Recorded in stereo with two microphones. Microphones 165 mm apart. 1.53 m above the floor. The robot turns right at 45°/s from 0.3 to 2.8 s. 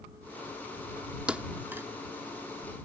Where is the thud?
5° right (ahead or behind); by 1.9 s 15° right (ahead or behind).